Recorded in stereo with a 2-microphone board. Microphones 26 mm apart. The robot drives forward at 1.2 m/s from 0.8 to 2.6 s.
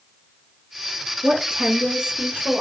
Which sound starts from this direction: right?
A woman speaking, at 1.2 s.